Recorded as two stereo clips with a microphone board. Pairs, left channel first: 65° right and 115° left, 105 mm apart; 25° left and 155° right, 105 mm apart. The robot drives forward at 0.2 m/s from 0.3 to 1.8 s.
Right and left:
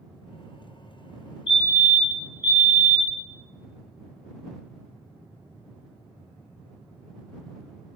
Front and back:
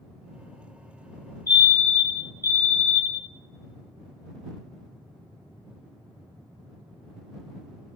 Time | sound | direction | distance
1.5 | a fire alarm | 70° left | 2 m